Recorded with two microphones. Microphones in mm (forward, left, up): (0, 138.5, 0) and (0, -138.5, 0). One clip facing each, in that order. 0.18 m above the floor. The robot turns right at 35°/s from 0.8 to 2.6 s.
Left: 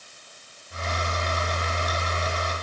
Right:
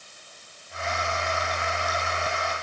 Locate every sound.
Only background noise.